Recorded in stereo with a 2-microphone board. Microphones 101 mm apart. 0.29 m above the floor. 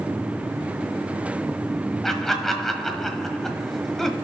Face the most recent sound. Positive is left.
turn(degrees=5)  # may be behind; listen again after turning